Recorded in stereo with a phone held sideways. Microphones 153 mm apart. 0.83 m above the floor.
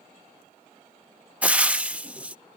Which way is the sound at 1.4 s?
10° right (ahead or behind).